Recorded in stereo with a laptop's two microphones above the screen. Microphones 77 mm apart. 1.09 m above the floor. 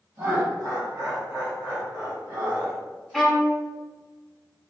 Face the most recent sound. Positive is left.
turn(degrees=0)  # may be behind; listen again after turning